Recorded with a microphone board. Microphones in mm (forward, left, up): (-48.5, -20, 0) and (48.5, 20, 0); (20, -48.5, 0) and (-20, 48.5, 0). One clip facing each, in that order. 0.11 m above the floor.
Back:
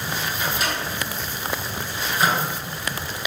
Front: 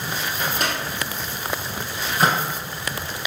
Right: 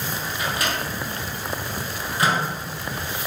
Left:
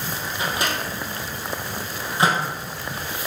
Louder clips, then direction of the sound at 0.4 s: Front 2 dB, left 1 dB; 50° left.